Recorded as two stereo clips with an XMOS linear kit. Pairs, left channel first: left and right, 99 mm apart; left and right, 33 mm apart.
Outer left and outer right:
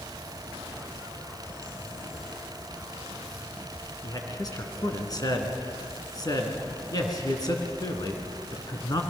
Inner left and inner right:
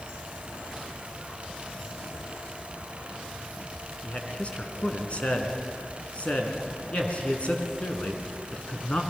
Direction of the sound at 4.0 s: 40° left (ahead or behind).